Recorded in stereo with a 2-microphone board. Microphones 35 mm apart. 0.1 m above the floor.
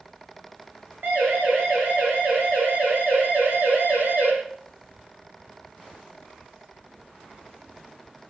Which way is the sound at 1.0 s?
80° right.